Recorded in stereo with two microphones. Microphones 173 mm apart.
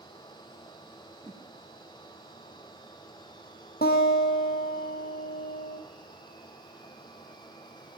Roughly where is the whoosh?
Centre.